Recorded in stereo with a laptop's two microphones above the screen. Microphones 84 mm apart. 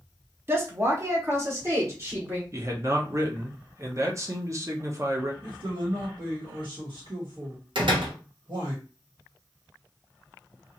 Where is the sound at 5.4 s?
70° right (ahead or behind), 1.5 m.